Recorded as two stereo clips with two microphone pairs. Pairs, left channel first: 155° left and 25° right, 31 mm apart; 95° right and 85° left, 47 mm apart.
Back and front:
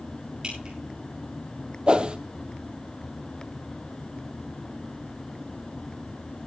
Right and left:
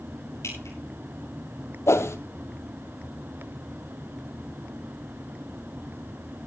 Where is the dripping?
85° right, 10 m.